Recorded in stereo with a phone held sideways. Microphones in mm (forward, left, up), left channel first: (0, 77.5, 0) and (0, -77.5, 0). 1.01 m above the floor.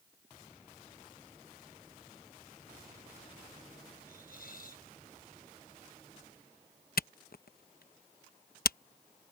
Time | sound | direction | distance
4.1 | a hiss | 75° left (ahead or behind) | ?
7.0 | a camera shutter | 75° left (ahead or behind) | ?